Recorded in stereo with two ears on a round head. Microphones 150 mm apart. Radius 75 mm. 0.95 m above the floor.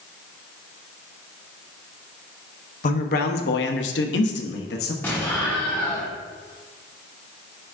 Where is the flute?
No flute in this recording.